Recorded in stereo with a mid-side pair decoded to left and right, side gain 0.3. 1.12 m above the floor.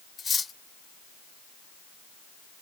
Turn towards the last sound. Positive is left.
turn(degrees=60)